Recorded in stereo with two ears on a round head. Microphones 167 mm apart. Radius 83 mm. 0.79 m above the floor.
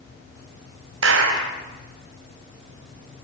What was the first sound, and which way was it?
A clap, 75° right (ahead or behind).